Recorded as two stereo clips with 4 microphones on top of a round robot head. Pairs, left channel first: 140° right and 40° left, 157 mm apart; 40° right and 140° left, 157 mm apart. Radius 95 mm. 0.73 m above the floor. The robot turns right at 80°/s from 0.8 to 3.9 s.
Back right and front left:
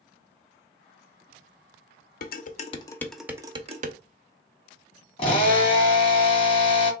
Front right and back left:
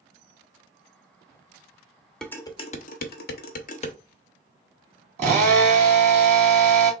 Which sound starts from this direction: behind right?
Dishes clattering, at 2.2 s.